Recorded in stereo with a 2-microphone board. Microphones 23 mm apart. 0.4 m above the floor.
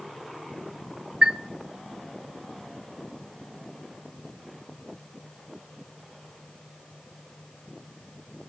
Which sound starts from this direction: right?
A chime, at 1.2 s.